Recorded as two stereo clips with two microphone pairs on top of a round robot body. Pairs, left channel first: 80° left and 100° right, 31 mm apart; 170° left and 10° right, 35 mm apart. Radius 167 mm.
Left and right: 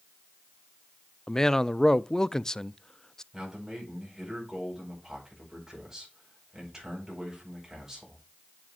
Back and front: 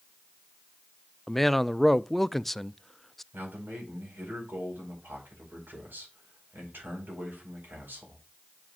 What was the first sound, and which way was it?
A man speaking, 75° left.